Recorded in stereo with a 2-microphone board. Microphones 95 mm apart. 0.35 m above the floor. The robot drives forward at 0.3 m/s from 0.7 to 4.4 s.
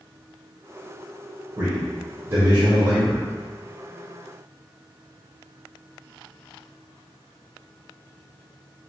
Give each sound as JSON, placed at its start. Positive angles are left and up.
{"t": 1.6, "sound": "a man speaking", "side_deg": -30, "distance_m": 1.4}